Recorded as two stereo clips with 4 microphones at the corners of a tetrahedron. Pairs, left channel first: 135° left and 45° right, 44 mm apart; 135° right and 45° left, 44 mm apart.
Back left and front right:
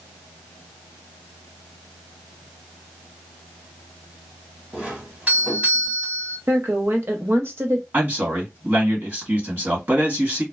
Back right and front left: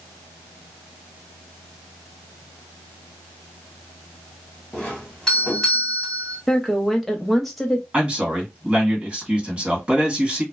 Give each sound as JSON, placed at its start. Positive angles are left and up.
{"t": 4.7, "sound": "a doorbell", "azimuth_deg": -65, "distance_m": 1.5}
{"t": 6.5, "sound": "a woman speaking", "azimuth_deg": -50, "distance_m": 0.6}
{"t": 7.9, "sound": "a man speaking", "azimuth_deg": -20, "distance_m": 1.6}